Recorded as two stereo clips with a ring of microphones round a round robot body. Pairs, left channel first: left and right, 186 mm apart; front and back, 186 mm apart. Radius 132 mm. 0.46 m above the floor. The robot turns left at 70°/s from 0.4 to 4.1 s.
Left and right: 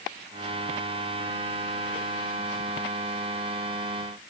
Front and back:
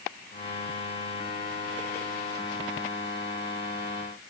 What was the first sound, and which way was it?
Only background noise.